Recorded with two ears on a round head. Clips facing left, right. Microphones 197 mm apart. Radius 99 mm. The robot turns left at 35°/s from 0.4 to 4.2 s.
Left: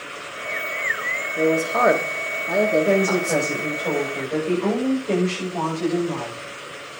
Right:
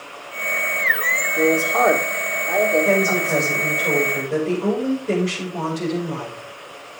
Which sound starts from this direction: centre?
A man speaking, at 1.4 s.